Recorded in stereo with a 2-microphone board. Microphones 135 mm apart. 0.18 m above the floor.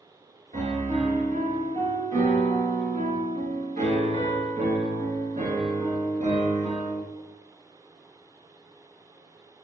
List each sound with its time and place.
0.5 s a piano: 60° right (ahead or behind), 1.4 m